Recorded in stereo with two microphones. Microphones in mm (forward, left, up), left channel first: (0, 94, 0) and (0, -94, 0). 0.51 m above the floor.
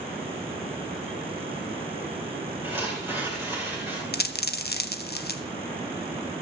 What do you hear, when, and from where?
2.6 s tearing paper: 10° right (ahead or behind), 7 m
4.1 s a dropped coin: 60° left (ahead or behind), 0.8 m